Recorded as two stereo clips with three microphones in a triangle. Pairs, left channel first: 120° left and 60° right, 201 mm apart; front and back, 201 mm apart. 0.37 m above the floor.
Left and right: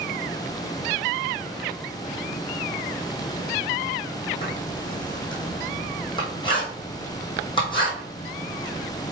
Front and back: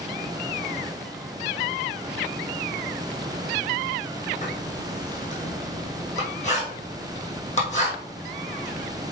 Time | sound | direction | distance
4.4 | writing | 55° left | 3 m